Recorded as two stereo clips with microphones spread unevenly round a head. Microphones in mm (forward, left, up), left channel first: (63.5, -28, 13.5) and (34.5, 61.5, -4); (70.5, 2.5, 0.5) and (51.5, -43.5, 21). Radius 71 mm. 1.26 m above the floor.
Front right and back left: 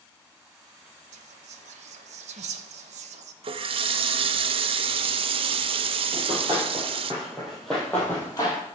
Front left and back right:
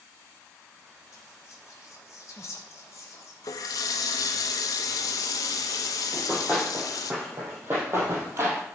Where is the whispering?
130° left, 0.8 m.